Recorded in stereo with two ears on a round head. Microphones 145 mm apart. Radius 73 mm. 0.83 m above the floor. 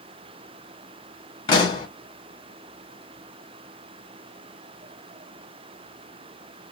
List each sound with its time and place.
1.5 s a pop: 30° left (ahead or behind), 1.5 m